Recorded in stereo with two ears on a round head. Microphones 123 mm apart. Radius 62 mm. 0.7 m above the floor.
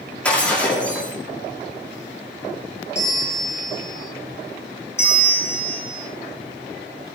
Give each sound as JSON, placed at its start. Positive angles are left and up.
{"t": 0.2, "sound": "breaking glass", "side_deg": 10, "distance_m": 9.0}
{"t": 3.0, "sound": "a bell", "side_deg": 20, "distance_m": 9.0}
{"t": 5.0, "sound": "a bell", "side_deg": 20, "distance_m": 2.5}